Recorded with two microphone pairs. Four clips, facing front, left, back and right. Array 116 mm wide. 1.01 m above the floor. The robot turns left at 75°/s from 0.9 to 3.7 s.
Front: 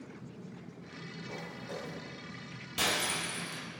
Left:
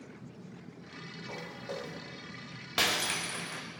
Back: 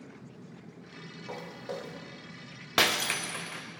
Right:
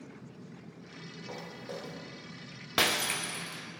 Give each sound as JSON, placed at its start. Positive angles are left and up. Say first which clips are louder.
{"t": 1.3, "sound": "footsteps", "louder": "left 1 dB, back 5 dB", "azimuth_deg": -155, "distance_m": 1.8}
{"t": 2.8, "sound": "breaking glass", "louder": "right 2 dB, back 5 dB", "azimuth_deg": -160, "distance_m": 0.5}